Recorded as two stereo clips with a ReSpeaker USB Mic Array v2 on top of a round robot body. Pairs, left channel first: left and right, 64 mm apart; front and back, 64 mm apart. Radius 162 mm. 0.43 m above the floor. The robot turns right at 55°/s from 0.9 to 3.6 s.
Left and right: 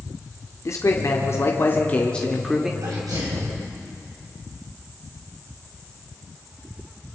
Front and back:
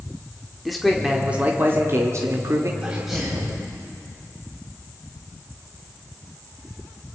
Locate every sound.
0.7 s a man speaking: 90° left, 1.9 m; by 2.7 s 170° right, 1.9 m
2.8 s a sneeze: 110° right, 3.5 m; by 3.6 s 70° right, 3.5 m